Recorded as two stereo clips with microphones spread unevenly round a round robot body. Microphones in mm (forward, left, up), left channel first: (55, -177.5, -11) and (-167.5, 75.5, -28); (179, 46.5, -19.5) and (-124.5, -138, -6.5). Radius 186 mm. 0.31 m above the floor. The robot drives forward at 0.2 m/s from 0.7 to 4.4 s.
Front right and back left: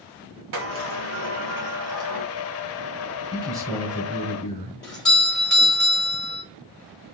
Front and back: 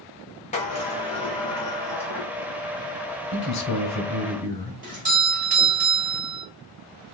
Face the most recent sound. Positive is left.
turn(degrees=-140)